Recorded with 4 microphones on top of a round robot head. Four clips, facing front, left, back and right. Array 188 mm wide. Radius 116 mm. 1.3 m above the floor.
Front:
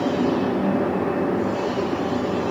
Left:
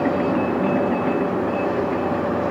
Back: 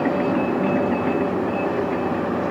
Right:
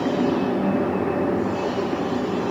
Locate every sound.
Only background noise.